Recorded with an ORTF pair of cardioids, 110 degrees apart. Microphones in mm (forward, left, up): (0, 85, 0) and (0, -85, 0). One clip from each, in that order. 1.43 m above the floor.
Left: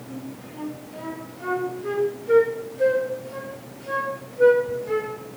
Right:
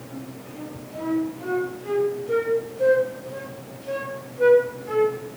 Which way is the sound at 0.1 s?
20° left.